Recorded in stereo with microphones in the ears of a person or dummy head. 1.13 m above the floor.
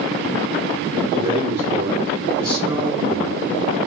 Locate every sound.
1.1 s a man speaking: 25° right (ahead or behind), 1.2 m